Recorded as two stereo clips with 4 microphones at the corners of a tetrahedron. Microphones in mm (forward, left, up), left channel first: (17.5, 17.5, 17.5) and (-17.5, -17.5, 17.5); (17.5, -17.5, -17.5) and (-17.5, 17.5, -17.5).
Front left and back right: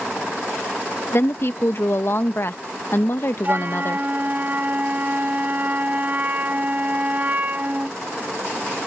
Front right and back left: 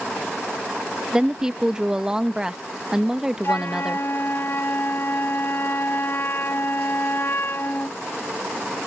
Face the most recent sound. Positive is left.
turn(degrees=-80)